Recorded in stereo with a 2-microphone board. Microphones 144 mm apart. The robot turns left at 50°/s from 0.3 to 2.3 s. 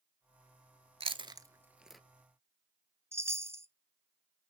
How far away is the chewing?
About 0.5 m.